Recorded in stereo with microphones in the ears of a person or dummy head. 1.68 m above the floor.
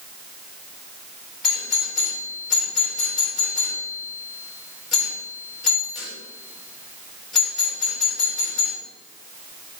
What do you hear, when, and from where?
1.4 s a doorbell: 5° left (ahead or behind), 3 m